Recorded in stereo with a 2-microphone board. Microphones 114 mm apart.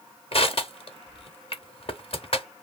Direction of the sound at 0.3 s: 55° left (ahead or behind).